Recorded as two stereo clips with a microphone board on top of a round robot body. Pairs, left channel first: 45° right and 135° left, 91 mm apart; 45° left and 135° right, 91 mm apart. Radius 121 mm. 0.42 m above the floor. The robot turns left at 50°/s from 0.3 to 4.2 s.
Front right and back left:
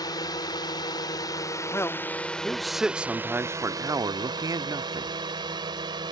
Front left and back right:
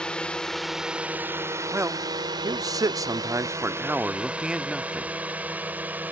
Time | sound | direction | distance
0.0 | a drone | 30° right | ?
1.7 | a man speaking | 85° right | ?